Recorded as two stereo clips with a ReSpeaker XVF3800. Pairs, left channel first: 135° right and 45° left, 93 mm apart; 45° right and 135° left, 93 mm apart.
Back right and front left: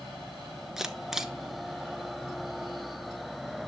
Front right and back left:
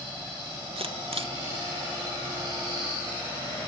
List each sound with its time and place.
0.8 s a camera shutter: 130° left, 0.9 m